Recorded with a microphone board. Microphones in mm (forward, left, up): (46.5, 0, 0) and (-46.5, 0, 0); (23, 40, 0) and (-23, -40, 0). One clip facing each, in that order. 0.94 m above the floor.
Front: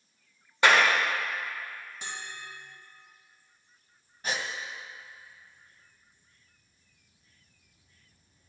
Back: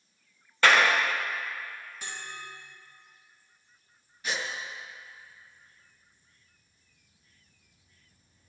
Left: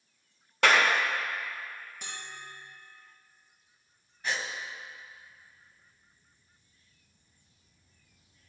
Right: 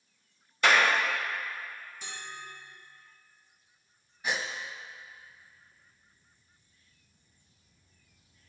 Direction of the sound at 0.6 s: 75° left.